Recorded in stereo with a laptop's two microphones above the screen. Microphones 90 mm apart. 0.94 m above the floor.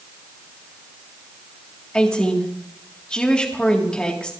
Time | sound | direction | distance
1.9 | a woman speaking | 10° left (ahead or behind) | 1.6 m